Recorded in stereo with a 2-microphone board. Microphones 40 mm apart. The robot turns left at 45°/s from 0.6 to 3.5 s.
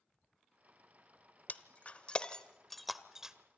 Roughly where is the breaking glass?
Left.